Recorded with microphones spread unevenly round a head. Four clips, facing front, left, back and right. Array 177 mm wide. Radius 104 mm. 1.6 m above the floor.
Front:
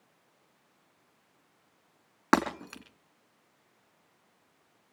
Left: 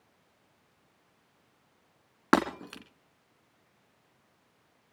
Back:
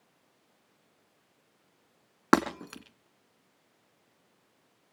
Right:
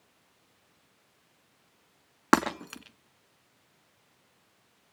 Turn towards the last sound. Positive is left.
turn(degrees=-175)